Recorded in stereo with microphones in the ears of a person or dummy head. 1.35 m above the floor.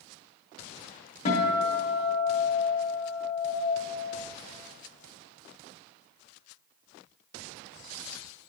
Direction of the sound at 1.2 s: 45° left (ahead or behind).